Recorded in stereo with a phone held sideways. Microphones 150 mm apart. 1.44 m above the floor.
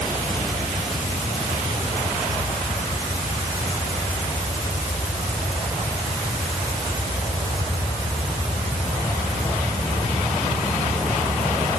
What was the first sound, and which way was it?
Only background noise.